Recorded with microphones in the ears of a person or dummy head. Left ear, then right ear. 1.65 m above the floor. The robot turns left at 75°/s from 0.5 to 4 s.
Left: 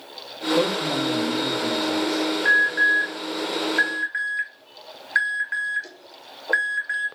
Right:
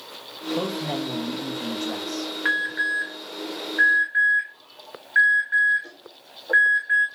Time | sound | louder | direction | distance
0.6 | a man speaking | left 5 dB | 5° left | 1.4 m
2.5 | an alarm | left 5 dB | 25° right (ahead or behind) | 2.5 m